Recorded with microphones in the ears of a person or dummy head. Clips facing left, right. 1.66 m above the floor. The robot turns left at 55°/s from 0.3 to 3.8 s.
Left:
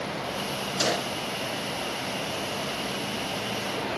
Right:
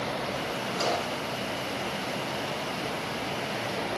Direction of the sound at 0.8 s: 20° left (ahead or behind).